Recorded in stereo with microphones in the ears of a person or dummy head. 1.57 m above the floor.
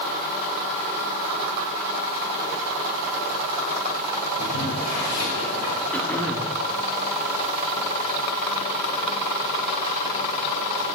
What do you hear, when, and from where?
4.4 s boiling: 70° left (ahead or behind), 6 m
5.9 s throat clearing: 10° left (ahead or behind), 1.5 m